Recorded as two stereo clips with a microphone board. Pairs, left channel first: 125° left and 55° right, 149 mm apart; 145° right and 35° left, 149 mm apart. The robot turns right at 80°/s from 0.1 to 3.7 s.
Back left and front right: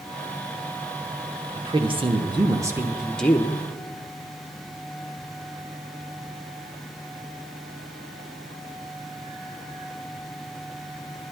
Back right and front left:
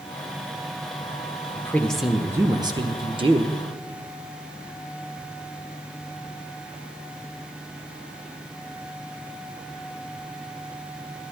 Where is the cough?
No cough in this recording.